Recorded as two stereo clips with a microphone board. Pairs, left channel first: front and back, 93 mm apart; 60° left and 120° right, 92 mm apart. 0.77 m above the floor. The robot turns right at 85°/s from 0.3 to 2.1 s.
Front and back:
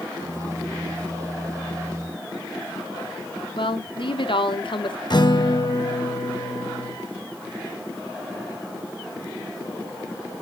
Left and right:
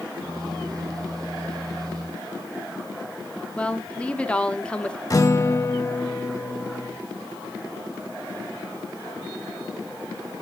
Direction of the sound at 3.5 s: 20° right.